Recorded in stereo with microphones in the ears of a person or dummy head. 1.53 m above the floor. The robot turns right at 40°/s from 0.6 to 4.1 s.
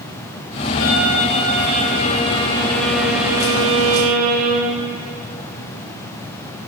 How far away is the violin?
About 3 m.